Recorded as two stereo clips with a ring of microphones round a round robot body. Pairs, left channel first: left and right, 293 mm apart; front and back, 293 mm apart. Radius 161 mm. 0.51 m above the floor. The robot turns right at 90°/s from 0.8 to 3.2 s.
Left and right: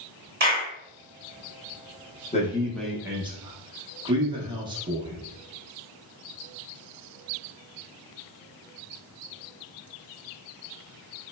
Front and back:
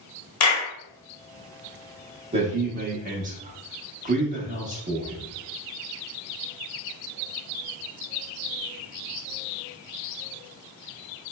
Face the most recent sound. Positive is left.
turn(degrees=-150)